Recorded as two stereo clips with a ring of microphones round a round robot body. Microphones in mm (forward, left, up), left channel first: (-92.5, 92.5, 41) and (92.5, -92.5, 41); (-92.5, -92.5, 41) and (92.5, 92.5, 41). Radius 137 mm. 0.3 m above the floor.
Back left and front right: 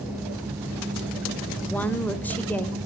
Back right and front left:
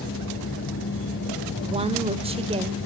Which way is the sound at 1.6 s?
60° left.